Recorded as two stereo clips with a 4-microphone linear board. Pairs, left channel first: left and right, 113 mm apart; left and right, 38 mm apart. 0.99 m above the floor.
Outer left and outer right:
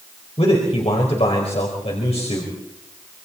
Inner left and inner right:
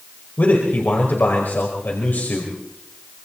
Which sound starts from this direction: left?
A man speaking, at 0.4 s.